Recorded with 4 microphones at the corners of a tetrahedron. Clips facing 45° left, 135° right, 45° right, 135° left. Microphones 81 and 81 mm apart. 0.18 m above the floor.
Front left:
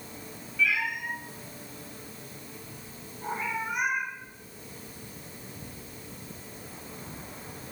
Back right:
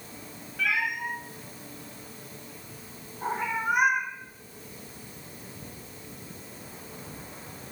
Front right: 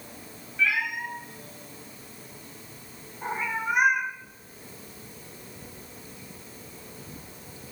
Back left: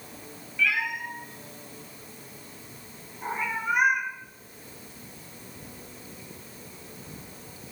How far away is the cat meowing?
About 6.5 m.